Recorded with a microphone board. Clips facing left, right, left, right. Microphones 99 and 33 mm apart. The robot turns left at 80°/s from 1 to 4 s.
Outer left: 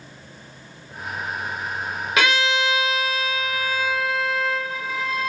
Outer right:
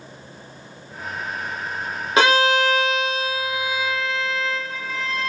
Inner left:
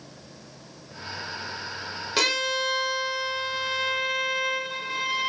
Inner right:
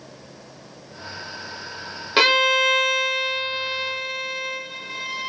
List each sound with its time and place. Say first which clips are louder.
2.2 s a violin: outer right 5 dB, inner right 8 dB; 35° right, 2 m; by 5.3 s 175° left, 2 m